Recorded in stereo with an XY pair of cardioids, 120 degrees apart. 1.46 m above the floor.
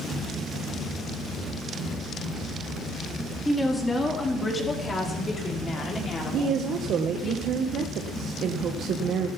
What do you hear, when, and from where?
3.5 s a woman speaking: 5° left, 4 m; by 7.3 s 45° left, 5.5 m
6.3 s a woman speaking: 60° right, 1.1 m